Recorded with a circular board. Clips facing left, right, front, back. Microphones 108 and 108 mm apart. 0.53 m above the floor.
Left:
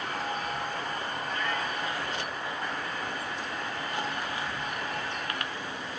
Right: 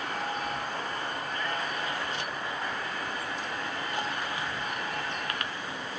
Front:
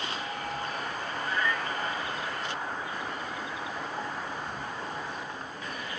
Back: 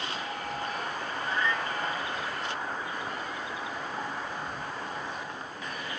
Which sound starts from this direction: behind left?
A cat meowing, at 1.2 s.